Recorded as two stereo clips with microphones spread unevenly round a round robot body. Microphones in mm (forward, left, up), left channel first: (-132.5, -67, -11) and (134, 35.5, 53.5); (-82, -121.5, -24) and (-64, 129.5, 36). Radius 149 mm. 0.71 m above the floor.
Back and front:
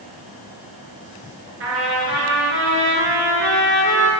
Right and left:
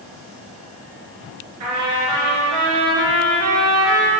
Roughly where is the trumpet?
Ahead left.